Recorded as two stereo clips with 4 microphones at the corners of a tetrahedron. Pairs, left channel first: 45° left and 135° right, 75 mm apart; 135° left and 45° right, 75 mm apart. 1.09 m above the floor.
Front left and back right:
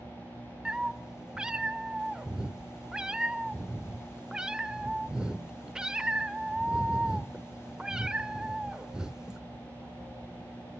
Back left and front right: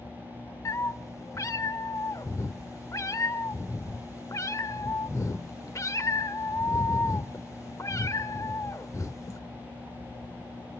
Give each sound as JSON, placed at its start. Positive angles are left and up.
{"t": 0.7, "sound": "a cat meowing", "azimuth_deg": 150, "distance_m": 0.9}